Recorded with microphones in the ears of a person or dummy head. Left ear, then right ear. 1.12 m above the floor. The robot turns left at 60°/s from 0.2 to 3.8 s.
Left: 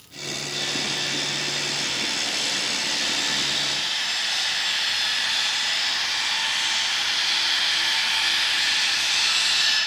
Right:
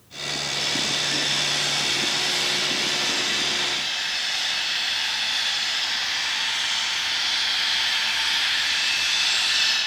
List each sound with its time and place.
0.5 s sawing: 10° right, 2 m; by 9.8 s 155° left, 2 m